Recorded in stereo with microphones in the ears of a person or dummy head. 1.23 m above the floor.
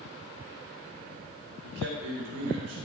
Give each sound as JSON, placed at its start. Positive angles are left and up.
{"t": 1.6, "sound": "a man speaking", "side_deg": -80, "distance_m": 5.0}